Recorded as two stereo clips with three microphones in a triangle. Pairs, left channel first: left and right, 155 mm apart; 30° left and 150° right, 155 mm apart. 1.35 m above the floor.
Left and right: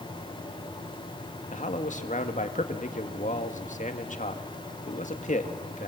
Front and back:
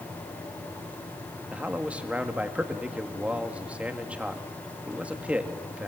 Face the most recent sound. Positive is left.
turn(degrees=130)